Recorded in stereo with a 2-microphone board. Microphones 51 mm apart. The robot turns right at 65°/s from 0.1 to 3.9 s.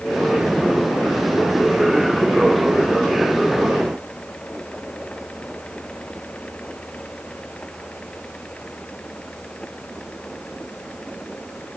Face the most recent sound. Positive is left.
No sound to turn to.